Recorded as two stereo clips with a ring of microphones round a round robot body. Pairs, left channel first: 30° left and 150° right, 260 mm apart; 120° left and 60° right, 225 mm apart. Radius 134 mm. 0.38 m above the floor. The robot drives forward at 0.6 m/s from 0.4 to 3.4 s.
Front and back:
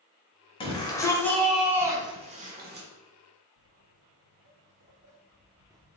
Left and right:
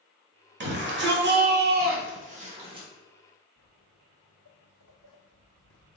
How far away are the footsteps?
About 1.7 m.